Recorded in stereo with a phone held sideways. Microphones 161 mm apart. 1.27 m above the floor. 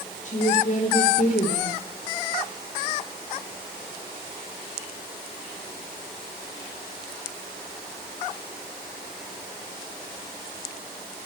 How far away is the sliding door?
I don't hear a sliding door.